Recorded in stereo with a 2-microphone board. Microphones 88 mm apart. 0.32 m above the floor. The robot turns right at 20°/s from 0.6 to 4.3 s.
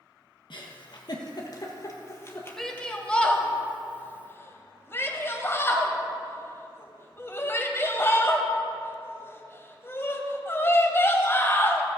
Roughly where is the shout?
Centre.